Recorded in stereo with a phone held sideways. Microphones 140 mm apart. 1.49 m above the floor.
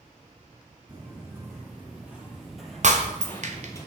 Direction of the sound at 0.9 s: 15° right (ahead or behind).